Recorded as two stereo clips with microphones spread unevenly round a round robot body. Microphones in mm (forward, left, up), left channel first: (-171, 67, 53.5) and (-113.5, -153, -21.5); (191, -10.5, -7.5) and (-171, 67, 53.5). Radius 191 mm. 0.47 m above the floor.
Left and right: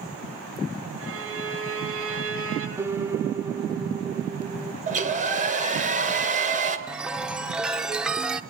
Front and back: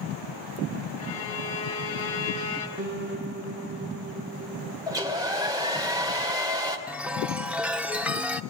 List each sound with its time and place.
1.0 s a violin: 65° right, 4.5 m
2.8 s a piano: 130° right, 1.1 m
4.9 s a hair dryer: 105° right, 2.5 m
6.9 s a chime: 85° right, 0.5 m